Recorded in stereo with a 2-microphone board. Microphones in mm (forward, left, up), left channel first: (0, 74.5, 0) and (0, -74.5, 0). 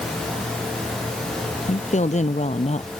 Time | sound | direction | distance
1.7 | a woman speaking | 50° left (ahead or behind) | ?